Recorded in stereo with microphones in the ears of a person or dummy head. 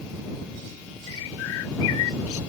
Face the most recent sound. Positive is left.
turn(degrees=80)